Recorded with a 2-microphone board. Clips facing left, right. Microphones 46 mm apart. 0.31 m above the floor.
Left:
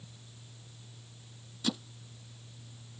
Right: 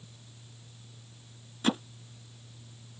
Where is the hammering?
40° right (ahead or behind).